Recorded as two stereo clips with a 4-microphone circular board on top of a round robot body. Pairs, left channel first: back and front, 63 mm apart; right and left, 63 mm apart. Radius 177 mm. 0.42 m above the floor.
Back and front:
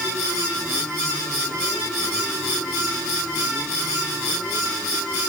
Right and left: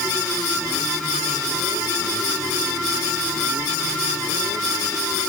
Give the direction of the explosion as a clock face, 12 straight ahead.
No explosion in this recording.